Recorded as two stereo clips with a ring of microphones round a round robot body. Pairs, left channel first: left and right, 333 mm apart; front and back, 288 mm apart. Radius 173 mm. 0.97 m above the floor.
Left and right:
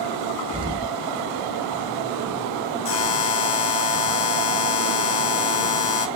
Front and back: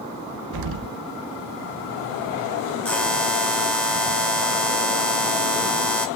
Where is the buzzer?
85° left, 2 m.